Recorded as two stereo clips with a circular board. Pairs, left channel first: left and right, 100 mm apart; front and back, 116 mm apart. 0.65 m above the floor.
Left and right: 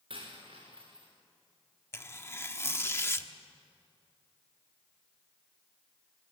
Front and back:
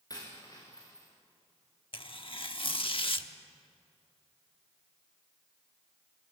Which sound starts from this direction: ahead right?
A dropped coin, at 0.1 s.